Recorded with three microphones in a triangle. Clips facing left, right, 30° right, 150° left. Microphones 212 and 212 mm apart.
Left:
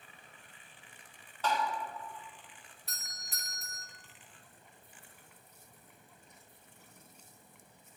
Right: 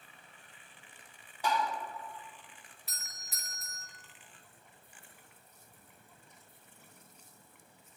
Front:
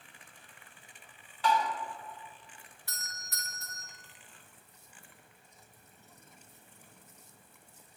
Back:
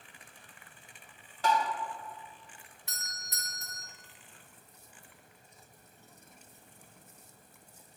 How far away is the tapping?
About 1.7 m.